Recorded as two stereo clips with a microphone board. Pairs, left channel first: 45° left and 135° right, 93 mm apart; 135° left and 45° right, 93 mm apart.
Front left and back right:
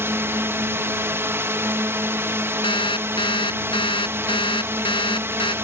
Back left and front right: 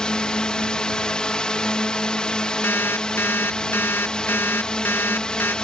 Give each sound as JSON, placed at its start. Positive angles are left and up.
{"t": 0.0, "sound": "a drone", "azimuth_deg": -155}
{"t": 2.6, "sound": "an alarm clock", "azimuth_deg": 70}